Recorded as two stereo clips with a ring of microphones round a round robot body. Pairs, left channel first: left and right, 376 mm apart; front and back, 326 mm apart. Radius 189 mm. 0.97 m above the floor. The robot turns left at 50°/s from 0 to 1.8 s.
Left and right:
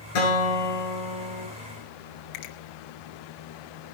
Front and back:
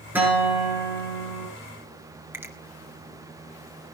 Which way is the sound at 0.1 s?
95° left.